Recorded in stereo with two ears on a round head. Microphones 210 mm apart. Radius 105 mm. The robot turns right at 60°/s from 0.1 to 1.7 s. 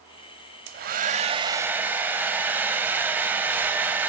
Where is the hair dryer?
75° right, 1.0 m; by 4.1 s 10° right, 1.0 m.